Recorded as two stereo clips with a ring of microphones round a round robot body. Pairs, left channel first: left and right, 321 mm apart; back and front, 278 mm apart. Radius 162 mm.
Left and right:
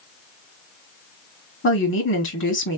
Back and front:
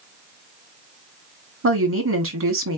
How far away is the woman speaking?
About 1.6 m.